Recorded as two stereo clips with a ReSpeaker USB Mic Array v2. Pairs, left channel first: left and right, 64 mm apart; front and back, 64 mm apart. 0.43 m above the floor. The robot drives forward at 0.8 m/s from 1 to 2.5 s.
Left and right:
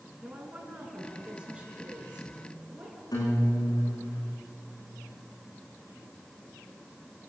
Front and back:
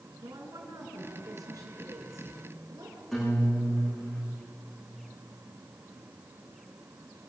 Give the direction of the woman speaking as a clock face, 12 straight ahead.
5 o'clock.